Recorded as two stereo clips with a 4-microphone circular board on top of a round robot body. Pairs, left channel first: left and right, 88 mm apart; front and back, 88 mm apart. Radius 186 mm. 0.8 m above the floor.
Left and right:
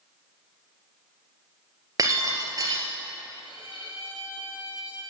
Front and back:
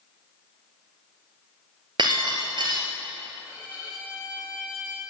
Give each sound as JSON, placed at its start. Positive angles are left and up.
{"t": 2.0, "sound": "breaking glass", "azimuth_deg": -140, "distance_m": 1.9}
{"t": 3.4, "sound": "a violin", "azimuth_deg": 100, "distance_m": 5.5}